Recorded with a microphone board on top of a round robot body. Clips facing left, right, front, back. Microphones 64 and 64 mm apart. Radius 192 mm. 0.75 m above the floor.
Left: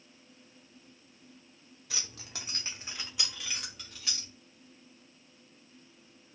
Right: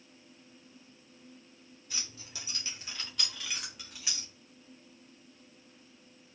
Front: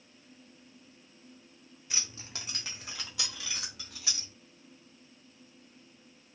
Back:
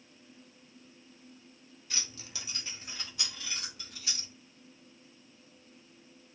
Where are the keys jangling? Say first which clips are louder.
Left 2 dB, front 1 dB; 75° left, 0.7 m; by 4.3 s 15° right, 1.5 m.